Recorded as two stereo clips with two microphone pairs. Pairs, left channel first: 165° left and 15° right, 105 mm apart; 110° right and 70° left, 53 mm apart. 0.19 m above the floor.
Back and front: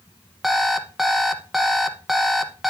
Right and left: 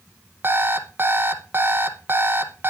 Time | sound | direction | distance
0.4 | an alarm clock | 70° left | 0.9 m